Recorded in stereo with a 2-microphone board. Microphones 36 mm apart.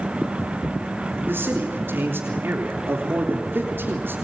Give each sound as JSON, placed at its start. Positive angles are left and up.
{"t": 1.3, "sound": "a man speaking", "side_deg": -80, "distance_m": 3.5}